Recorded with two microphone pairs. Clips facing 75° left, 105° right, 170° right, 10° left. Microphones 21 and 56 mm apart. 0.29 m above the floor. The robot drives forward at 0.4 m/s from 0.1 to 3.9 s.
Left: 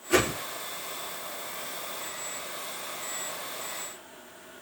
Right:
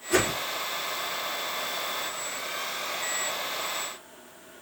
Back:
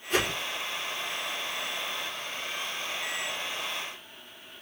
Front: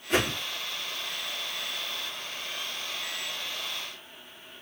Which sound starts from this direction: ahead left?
A whoosh, at 0.1 s.